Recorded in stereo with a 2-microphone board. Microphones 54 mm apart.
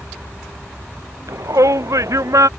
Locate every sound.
1.3 s a shout: 80° right